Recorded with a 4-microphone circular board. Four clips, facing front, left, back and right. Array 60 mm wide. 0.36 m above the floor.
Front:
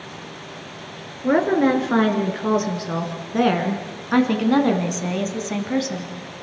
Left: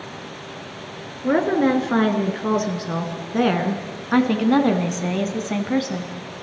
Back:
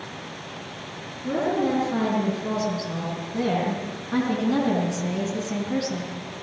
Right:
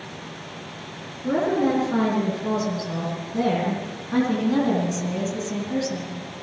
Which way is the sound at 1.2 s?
40° left.